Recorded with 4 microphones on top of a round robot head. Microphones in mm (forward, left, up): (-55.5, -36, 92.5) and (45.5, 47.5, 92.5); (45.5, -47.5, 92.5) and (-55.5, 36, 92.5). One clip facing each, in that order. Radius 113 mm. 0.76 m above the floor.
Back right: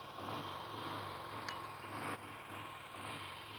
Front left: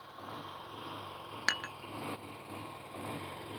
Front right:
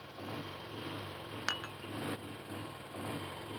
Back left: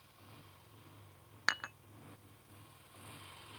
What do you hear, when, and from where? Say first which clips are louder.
0.0 s a motorcycle: back right 1 dB, front right 18 dB; 55° right; by 3.6 s 5° right
1.5 s dishes clattering: front left 6 dB, back left 3 dB; 40° left